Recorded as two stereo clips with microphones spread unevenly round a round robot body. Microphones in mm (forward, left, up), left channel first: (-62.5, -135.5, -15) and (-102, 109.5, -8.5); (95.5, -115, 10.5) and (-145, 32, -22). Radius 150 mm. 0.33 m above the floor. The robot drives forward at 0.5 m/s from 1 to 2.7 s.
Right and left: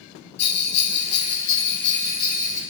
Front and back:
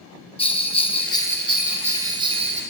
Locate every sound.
0.4 s a bell: 105° right, 0.8 m; by 2.6 s 140° right, 1.3 m